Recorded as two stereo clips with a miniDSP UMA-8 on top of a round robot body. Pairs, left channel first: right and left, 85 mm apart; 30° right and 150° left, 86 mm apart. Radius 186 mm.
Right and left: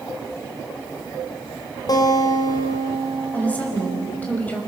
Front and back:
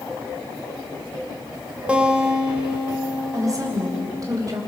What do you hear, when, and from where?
1.9 s a guitar: 135° right, 2.5 m
3.3 s a woman speaking: 160° right, 5 m